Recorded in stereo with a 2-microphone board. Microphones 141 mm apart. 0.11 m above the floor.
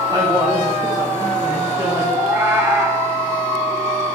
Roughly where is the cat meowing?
Centre.